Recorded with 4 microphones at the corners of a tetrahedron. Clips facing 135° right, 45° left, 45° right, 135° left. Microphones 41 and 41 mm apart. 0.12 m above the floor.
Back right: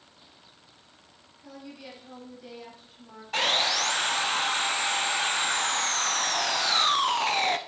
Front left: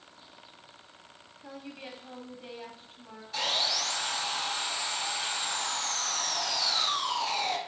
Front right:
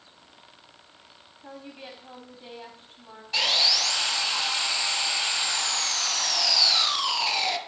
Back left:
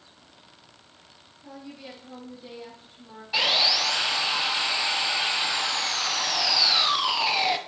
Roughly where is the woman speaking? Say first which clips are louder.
Even, even; ahead.